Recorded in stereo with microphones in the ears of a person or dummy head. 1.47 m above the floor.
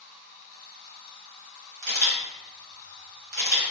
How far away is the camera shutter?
About 1.3 m.